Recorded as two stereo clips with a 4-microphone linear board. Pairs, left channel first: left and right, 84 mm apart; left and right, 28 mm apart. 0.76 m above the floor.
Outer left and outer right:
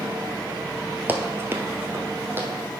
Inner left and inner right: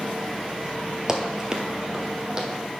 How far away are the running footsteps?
About 0.8 m.